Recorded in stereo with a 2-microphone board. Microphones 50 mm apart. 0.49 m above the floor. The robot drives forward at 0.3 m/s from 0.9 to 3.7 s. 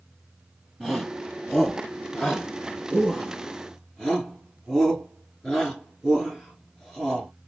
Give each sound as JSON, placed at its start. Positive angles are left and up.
{"t": 0.8, "sound": "a shout", "side_deg": 0, "distance_m": 4.0}